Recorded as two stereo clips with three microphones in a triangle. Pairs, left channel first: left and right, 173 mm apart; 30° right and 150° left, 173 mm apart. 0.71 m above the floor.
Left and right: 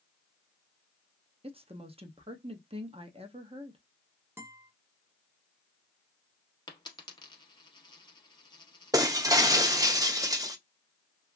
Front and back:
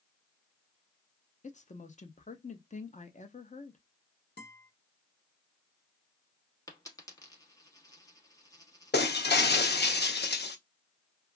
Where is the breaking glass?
20° right, 0.5 m.